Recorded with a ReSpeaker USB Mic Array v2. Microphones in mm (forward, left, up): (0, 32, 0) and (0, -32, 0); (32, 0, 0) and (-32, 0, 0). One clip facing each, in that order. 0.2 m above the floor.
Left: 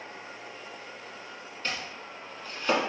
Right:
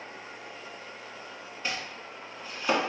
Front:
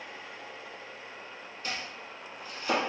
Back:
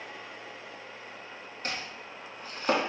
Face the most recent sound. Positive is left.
turn(degrees=-165)